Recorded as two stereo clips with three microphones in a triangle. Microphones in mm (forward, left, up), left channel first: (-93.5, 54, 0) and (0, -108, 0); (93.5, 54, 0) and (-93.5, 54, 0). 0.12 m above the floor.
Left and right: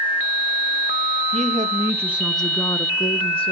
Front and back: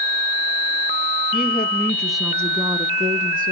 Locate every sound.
1.3 s a woman speaking: 25° right, 1.3 m; by 3.5 s 170° left, 1.6 m